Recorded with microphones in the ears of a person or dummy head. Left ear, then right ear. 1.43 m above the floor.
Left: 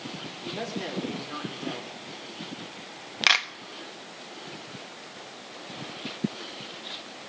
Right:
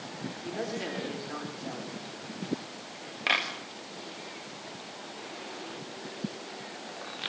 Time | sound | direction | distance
0.4 | a woman speaking | 10° left (ahead or behind) | 4 m
3.3 | a clap | 50° left (ahead or behind) | 1.7 m